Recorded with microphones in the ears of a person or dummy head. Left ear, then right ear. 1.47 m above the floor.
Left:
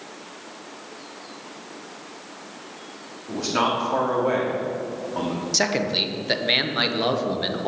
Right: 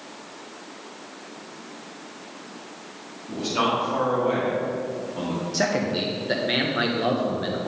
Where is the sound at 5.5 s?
30° left (ahead or behind), 0.9 m.